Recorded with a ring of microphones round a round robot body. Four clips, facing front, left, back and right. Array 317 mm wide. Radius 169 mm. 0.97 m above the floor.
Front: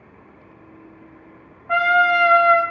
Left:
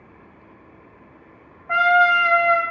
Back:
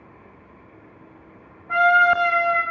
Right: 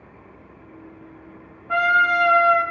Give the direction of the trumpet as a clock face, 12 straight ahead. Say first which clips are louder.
Left 3 dB, even; 10 o'clock.